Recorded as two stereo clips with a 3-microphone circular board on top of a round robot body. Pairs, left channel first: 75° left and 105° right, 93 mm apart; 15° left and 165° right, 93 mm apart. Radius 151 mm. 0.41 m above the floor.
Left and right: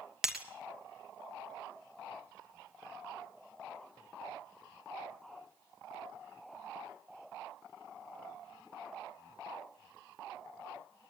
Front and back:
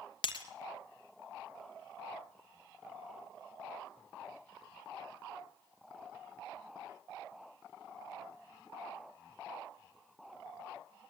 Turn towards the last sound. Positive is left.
turn(degrees=-20)